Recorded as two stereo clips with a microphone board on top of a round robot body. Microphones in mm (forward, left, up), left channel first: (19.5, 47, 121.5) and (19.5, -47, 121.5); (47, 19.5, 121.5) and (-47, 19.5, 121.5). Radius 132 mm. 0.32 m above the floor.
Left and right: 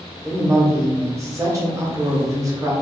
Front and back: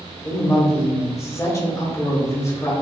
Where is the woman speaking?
45° right, 1.9 m.